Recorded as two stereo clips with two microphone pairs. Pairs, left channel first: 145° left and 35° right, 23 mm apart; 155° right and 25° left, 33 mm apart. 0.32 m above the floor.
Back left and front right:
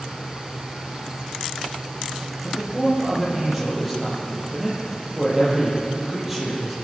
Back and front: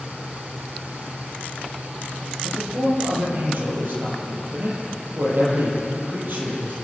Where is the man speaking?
45° left, 8 m.